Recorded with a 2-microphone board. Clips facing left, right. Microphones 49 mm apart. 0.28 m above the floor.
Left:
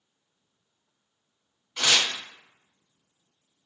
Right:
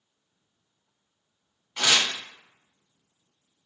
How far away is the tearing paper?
About 1.5 m.